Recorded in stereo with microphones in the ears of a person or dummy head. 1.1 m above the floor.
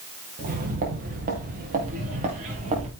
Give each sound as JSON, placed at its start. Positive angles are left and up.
{"t": 0.4, "sound": "footsteps", "side_deg": -50, "distance_m": 5.0}